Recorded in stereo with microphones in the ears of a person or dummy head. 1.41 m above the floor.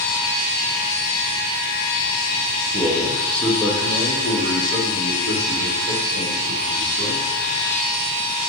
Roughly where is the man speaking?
Centre.